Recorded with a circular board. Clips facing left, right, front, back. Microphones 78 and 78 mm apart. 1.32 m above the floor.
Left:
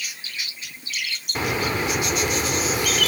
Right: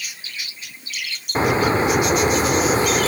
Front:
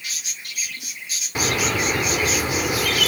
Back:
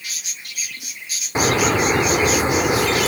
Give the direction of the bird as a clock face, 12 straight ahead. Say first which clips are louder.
Right 7 dB, back 5 dB; 4 o'clock.